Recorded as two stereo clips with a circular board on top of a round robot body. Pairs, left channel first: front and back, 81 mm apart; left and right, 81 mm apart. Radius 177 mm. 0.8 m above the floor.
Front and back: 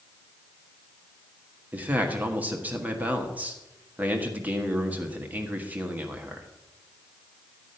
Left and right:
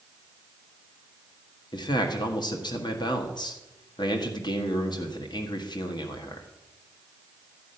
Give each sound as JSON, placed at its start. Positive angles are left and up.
{"t": 1.7, "sound": "a man speaking", "azimuth_deg": 110, "distance_m": 1.6}